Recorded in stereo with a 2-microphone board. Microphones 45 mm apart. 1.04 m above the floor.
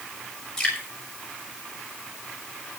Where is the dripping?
10° left (ahead or behind), 6.5 m.